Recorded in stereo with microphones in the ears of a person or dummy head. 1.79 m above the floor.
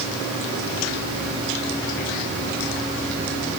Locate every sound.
Only background noise.